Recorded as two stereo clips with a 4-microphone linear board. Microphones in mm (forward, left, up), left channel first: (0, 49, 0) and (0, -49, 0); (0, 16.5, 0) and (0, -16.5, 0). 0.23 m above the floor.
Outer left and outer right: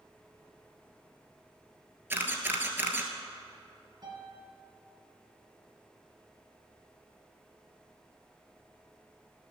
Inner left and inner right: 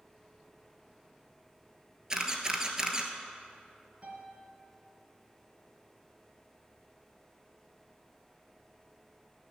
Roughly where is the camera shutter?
Right.